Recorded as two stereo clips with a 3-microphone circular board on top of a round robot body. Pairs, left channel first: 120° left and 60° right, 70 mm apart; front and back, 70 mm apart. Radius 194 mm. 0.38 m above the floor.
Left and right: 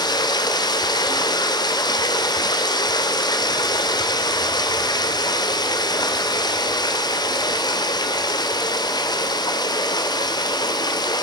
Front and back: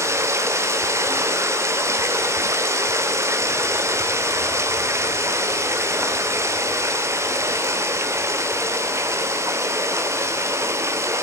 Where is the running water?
130° left, 1.2 m.